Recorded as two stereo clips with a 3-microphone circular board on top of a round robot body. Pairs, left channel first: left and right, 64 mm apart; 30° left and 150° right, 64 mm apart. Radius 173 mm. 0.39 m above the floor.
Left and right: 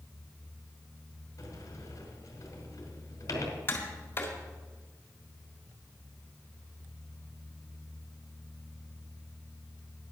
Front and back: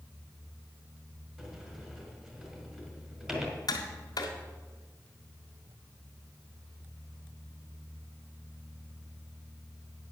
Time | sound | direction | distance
1.4 | a sliding door | 130° left | 2.0 m
3.7 | tapping | 35° left | 1.8 m